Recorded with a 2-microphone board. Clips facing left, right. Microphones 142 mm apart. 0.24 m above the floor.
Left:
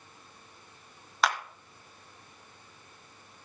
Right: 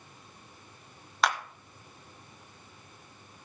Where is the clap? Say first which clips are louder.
Even; centre (ahead or behind), 1.3 m.